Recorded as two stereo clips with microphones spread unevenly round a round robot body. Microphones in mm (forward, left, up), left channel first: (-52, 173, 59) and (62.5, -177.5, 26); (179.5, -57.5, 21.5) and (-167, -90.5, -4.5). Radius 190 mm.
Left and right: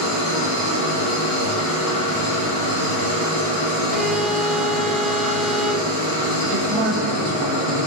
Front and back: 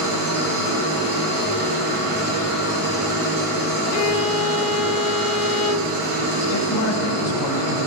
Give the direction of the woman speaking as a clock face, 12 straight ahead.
1 o'clock.